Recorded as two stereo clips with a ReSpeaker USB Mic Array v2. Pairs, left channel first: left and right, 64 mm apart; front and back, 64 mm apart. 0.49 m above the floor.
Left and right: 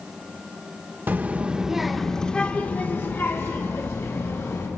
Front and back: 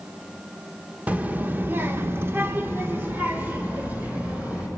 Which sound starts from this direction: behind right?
A child speaking, at 1.1 s.